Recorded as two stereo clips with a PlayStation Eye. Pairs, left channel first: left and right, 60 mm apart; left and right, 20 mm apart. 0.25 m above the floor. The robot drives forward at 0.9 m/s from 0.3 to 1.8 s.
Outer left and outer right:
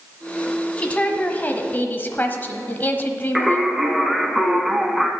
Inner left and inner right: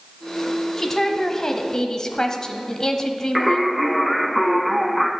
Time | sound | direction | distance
0.8 | a woman speaking | 20° left (ahead or behind) | 1.5 m
3.4 | singing | 5° right (ahead or behind) | 0.9 m